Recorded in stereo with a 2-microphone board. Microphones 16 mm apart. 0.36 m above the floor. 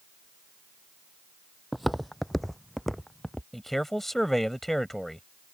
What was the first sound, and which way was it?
Footsteps, 5° right (ahead or behind).